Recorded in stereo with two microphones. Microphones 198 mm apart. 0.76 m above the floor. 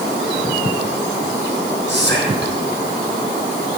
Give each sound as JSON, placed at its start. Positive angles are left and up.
{"t": 1.9, "sound": "whispering", "side_deg": -60, "distance_m": 5.0}